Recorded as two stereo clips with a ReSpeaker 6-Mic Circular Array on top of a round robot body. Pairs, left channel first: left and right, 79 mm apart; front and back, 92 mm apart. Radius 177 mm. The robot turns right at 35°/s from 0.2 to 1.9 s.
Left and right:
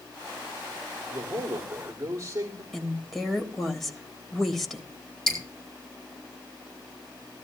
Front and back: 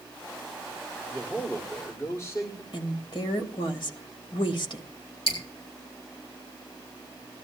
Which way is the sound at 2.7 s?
Straight ahead.